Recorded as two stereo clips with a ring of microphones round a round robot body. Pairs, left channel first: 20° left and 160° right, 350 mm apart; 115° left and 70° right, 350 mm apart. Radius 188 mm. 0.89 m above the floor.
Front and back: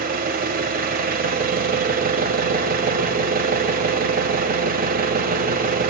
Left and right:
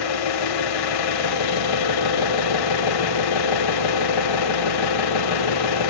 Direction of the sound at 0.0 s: 135° left.